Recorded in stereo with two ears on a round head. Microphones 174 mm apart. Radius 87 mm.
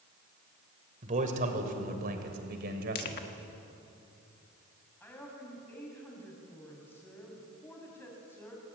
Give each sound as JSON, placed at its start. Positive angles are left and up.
{"t": 1.0, "sound": "a man speaking", "side_deg": -35, "distance_m": 3.0}
{"t": 3.0, "sound": "crushing", "side_deg": 50, "distance_m": 1.5}
{"t": 5.0, "sound": "a woman speaking", "side_deg": 10, "distance_m": 6.0}